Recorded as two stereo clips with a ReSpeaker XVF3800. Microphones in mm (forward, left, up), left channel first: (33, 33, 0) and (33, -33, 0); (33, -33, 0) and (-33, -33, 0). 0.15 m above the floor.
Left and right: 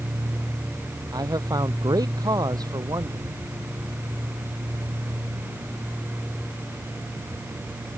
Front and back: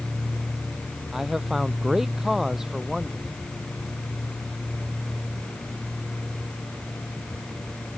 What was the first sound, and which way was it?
A man speaking, 95° right.